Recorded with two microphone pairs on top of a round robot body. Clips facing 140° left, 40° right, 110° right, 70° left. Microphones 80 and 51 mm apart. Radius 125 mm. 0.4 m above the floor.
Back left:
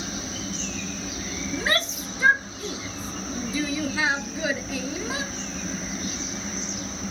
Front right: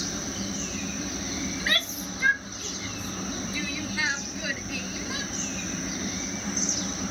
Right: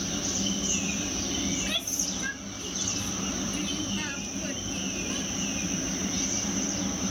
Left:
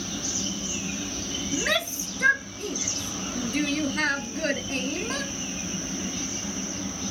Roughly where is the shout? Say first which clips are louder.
Back left 7 dB, left 6 dB; left.